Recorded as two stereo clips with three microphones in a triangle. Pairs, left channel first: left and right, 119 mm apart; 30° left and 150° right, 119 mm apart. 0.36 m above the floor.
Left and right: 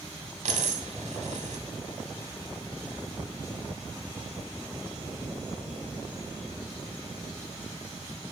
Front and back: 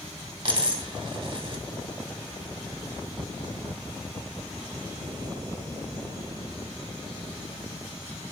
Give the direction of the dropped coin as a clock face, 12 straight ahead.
3 o'clock.